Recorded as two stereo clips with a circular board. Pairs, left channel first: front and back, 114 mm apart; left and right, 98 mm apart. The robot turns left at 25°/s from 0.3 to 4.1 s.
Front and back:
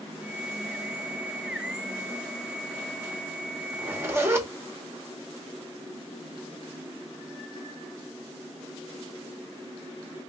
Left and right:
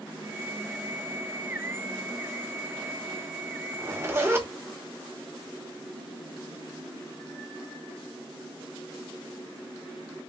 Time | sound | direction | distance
3.7 | a zipper | 120° right | 0.8 m